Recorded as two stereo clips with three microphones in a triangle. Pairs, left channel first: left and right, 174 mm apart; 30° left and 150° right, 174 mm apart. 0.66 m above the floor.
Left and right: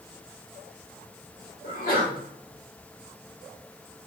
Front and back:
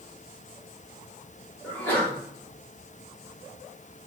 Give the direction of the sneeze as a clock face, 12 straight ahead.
8 o'clock.